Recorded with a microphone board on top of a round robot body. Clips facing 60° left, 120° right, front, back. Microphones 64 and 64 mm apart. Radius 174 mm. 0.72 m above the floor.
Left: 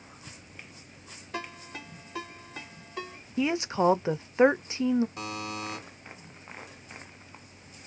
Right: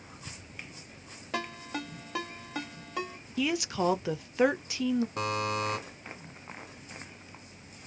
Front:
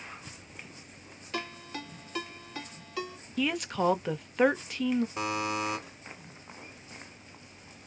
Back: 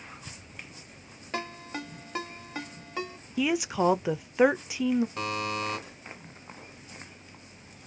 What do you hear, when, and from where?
1.3 s a ringtone: 120° right, 1.9 m
3.4 s a woman speaking: 105° left, 0.6 m
5.2 s a buzzer: 80° right, 1.1 m